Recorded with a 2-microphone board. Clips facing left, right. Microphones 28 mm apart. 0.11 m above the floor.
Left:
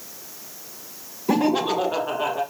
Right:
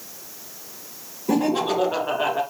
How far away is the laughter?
About 1.4 m.